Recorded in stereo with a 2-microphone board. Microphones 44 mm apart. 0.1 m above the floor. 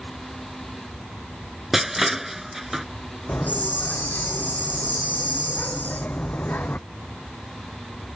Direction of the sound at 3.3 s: 40° left (ahead or behind).